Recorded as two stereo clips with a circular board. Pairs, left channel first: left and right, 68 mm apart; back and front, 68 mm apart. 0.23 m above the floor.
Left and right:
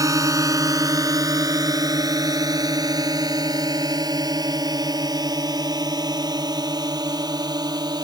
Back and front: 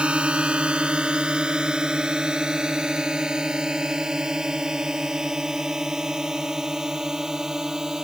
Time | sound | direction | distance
0.0 | a drone | 70° right | ?